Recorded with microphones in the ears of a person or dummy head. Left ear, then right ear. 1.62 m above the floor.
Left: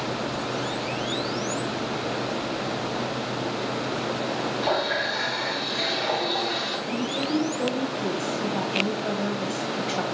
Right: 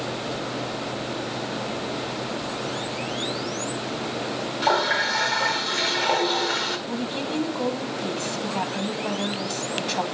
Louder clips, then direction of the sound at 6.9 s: Left 2 dB; 15° right (ahead or behind).